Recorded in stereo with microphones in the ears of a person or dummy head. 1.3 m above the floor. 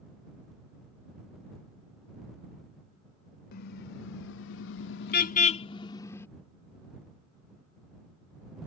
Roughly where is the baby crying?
I don't hear a baby crying.